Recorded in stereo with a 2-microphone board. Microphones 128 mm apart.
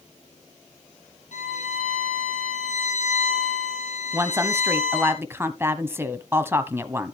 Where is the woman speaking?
20° right (ahead or behind), 1.0 m.